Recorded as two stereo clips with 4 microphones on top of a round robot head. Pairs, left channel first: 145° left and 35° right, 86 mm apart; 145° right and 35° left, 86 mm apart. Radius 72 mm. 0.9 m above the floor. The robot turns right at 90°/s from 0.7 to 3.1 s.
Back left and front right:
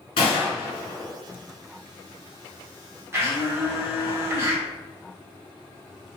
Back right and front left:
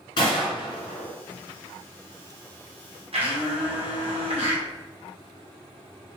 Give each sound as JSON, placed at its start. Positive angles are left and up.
{"t": 0.2, "sound": "a gunshot", "azimuth_deg": 175, "distance_m": 1.6}
{"t": 3.1, "sound": "a blender", "azimuth_deg": 25, "distance_m": 2.0}